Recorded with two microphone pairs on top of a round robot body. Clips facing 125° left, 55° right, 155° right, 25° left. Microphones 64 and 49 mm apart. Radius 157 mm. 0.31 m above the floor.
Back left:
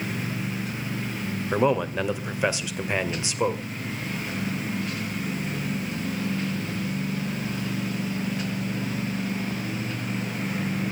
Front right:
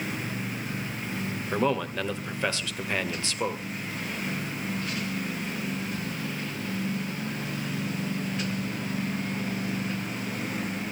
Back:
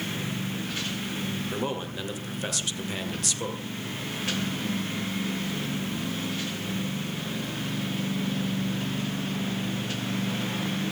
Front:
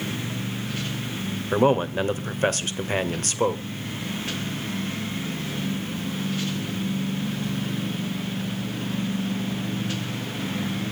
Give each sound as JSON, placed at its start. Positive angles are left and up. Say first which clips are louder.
{"t": 1.5, "sound": "a man speaking", "louder": "back left 4 dB, front 11 dB", "azimuth_deg": 60, "distance_m": 2.5}